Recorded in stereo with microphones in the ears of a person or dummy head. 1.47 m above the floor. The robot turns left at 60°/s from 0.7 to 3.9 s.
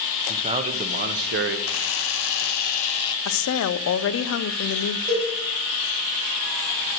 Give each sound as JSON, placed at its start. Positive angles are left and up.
{"t": 0.3, "sound": "a man speaking", "azimuth_deg": -40, "distance_m": 0.9}
{"t": 1.7, "sound": "a camera shutter", "azimuth_deg": 115, "distance_m": 0.5}
{"t": 3.2, "sound": "a woman speaking", "azimuth_deg": 110, "distance_m": 0.6}
{"t": 5.1, "sound": "a cowbell", "side_deg": -30, "distance_m": 5.0}